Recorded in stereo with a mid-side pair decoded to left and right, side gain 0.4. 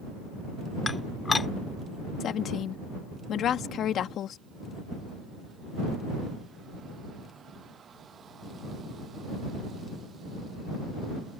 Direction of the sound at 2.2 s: 70° left.